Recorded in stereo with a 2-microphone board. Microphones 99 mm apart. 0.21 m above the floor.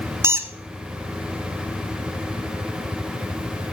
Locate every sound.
0.2 s a squeak: 25° right (ahead or behind), 1.1 m